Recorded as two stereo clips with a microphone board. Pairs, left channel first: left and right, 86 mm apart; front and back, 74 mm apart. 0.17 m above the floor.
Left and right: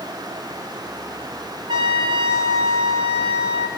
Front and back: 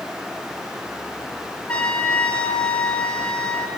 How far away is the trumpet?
About 0.6 m.